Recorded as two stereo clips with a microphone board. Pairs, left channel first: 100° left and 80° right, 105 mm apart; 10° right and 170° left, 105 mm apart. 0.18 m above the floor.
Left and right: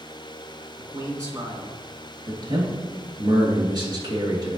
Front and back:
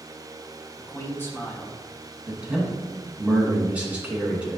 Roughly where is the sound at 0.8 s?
Ahead right.